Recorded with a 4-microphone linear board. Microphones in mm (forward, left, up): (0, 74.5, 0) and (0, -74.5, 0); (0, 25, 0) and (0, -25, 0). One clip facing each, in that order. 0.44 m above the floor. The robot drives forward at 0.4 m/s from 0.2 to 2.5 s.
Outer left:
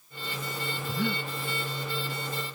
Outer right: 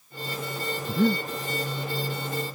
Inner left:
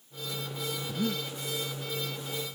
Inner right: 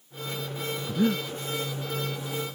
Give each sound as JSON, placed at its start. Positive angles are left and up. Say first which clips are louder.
{"t": 0.9, "sound": "breathing", "louder": "outer right 9 dB, inner right 8 dB", "side_deg": -40}